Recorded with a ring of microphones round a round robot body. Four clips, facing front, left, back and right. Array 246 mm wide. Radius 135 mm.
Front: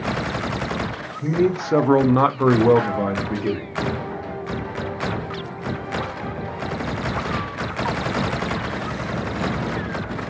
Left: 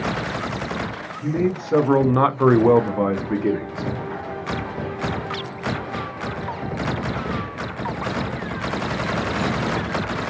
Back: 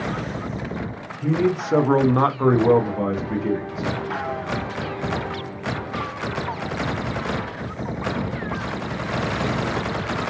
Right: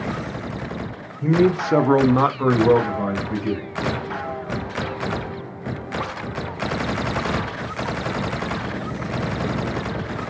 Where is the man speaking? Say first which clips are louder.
Right 5 dB, front 1 dB; 85° right, 0.7 m; by 3.9 s 85° left, 1.2 m.